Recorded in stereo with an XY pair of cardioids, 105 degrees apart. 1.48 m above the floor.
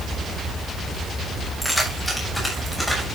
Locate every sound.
1.6 s keys jangling: straight ahead, 7.5 m